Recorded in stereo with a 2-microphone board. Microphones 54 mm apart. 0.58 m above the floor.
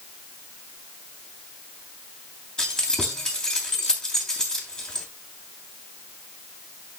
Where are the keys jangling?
15° left (ahead or behind), 3 m.